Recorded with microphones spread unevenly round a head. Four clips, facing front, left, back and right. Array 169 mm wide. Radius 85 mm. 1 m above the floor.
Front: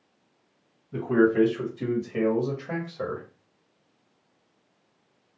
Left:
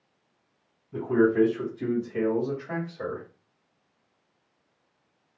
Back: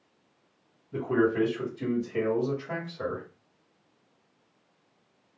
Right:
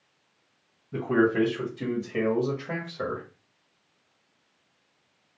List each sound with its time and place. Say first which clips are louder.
0.9 s a man speaking: left 1 dB, front 4 dB; 55° right, 1.6 m; by 3.2 s straight ahead, 1.3 m